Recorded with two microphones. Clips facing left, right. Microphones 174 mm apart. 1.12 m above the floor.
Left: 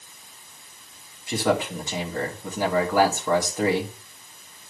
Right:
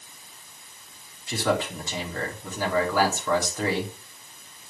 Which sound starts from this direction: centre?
A man speaking, at 1.3 s.